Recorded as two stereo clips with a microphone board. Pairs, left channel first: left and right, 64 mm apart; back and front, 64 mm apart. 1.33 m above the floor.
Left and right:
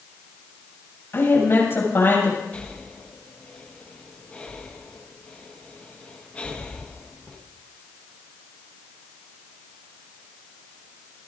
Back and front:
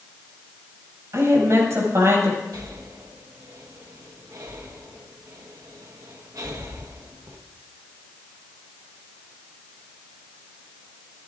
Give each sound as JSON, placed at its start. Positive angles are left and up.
{"t": 1.1, "sound": "a woman speaking", "azimuth_deg": 40, "distance_m": 7.5}
{"t": 2.5, "sound": "breathing", "azimuth_deg": 20, "distance_m": 1.6}